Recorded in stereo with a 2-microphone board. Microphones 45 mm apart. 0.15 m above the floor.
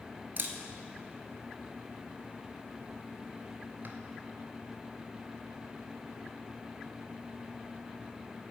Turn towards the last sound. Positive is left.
turn(degrees=-50)  # may be behind; listen again after turning